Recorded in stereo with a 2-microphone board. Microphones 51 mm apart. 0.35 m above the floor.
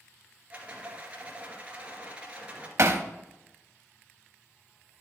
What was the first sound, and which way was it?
A rattle, 25° right (ahead or behind).